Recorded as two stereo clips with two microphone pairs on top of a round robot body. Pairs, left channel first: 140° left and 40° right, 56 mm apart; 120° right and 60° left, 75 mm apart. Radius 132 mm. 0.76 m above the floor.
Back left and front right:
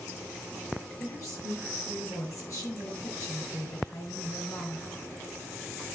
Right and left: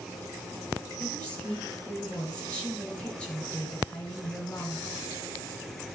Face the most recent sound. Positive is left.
turn(degrees=170)